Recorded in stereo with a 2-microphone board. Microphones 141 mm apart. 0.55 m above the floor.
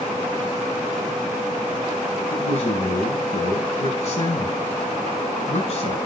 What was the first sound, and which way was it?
A man speaking, 50° left (ahead or behind).